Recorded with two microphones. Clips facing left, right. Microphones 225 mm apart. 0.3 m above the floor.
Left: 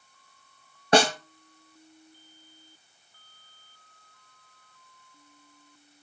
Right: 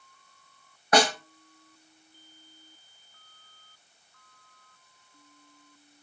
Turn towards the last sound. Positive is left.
turn(degrees=30)  # may be behind; listen again after turning